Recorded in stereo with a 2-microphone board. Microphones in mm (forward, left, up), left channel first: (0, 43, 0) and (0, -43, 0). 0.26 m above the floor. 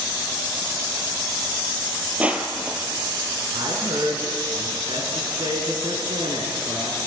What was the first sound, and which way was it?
Crushing, 15° right (ahead or behind).